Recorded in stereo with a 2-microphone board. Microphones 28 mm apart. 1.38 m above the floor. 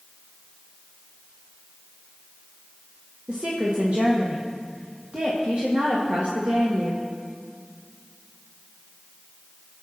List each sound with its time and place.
3.3 s a woman speaking: 45° right (ahead or behind), 1.7 m